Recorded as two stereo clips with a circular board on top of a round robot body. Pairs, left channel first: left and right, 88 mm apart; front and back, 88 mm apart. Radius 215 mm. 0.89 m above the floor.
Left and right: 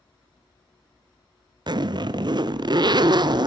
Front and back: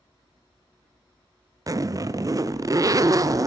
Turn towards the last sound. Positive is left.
turn(degrees=-130)